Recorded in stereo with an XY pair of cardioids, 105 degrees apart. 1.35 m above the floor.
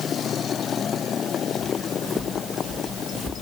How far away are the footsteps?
About 5.5 m.